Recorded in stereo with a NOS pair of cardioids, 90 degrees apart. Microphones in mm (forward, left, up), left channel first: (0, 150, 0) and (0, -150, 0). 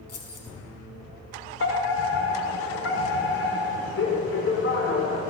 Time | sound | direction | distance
0.1 | keys jangling | 55° left | 6 m
1.6 | a fire alarm | 45° left | 6 m